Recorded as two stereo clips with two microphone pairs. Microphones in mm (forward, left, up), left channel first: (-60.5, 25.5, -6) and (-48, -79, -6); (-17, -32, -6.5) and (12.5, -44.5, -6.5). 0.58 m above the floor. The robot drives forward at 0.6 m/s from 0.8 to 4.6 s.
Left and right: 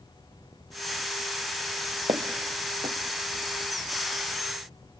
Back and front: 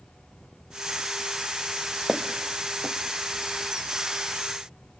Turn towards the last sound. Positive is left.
turn(degrees=-140)